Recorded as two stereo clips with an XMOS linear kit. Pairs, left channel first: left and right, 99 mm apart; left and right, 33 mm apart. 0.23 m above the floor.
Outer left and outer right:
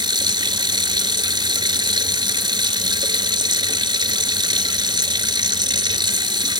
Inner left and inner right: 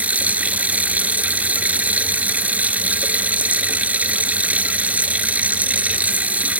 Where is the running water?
50° right (ahead or behind), 1.0 m.